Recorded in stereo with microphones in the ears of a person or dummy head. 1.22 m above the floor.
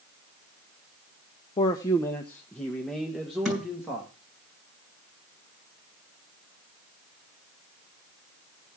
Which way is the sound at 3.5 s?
5° left (ahead or behind).